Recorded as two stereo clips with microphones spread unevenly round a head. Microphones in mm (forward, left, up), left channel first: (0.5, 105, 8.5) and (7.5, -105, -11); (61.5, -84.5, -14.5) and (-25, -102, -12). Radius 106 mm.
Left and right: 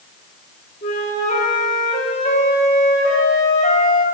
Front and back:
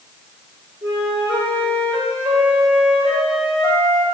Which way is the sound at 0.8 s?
145° left.